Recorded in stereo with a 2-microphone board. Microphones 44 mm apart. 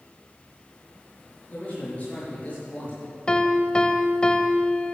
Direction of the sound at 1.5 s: 30° left (ahead or behind).